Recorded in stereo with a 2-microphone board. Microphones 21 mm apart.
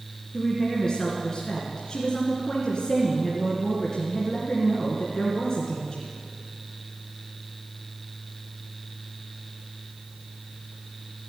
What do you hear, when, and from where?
0.3 s a woman speaking: 35° left (ahead or behind), 2 m